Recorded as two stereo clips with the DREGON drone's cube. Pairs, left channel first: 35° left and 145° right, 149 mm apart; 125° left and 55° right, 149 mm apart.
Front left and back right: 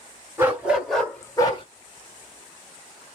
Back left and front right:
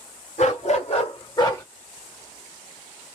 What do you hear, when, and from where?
0.4 s a dog barking: 145° left, 2 m; by 1.6 s 65° left, 1.4 m